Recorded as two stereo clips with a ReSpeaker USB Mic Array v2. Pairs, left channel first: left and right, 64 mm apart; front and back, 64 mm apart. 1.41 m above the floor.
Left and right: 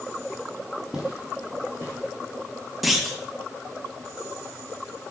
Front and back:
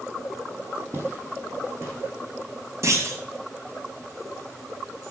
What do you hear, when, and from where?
0.9 s footsteps: 160° right, 1.8 m; by 2.1 s 140° right, 2.5 m
2.8 s a clunk: 175° right, 1.0 m